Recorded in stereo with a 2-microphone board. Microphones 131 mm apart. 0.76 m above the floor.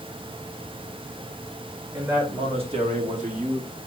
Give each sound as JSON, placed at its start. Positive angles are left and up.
{"t": 1.9, "sound": "a man speaking", "side_deg": -20, "distance_m": 2.0}